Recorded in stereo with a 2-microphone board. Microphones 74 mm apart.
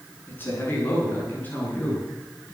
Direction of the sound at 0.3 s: 25° left (ahead or behind).